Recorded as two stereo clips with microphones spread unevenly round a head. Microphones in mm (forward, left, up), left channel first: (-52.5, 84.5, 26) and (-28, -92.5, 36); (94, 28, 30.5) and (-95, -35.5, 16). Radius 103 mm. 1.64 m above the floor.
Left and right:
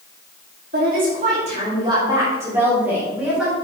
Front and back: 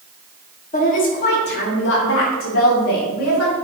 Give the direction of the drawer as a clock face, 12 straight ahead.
No drawer in this recording.